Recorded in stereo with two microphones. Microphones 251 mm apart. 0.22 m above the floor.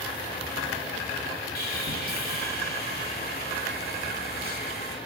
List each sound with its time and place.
1.6 s sawing: 40° left (ahead or behind), 0.8 m